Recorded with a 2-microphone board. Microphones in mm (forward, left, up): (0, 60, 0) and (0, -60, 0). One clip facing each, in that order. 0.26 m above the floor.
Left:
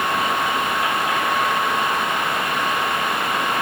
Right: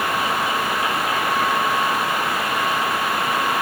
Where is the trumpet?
I don't hear a trumpet.